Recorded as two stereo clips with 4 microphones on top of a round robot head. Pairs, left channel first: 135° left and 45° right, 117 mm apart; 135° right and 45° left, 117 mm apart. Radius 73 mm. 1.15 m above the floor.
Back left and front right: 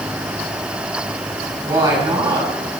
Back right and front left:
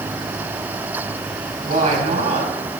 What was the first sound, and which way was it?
A woman speaking, 20° left.